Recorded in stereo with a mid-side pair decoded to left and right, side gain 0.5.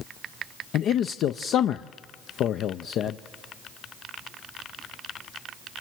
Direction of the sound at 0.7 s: 65° left.